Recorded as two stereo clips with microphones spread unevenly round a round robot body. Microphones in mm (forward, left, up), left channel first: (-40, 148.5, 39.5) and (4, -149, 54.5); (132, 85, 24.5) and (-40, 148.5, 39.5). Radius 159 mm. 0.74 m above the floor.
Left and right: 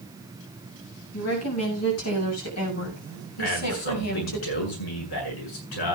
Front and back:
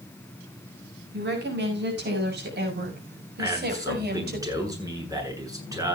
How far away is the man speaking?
About 8 m.